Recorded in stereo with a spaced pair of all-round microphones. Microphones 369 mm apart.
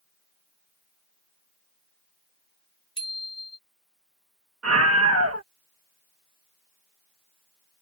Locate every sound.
3.0 s a bicycle bell: 15° left (ahead or behind)
4.6 s a scream: 40° right (ahead or behind)